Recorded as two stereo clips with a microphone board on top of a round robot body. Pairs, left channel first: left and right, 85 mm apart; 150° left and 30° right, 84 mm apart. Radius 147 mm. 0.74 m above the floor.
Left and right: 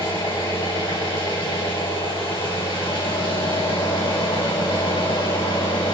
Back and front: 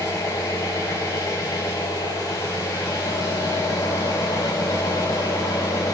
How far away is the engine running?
About 5 m.